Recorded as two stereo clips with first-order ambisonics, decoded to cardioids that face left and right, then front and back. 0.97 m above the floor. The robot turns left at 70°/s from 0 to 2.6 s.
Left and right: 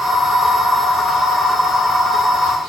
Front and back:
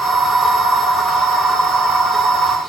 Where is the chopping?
I don't hear chopping.